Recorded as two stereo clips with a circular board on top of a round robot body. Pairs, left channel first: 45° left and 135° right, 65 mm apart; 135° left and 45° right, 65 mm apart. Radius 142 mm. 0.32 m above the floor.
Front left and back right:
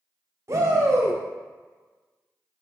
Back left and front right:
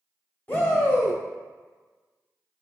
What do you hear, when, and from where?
0.5 s a shout: 170° right, 1.7 m